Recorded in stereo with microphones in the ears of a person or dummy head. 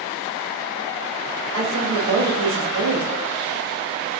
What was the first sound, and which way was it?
A woman speaking, 75° right (ahead or behind).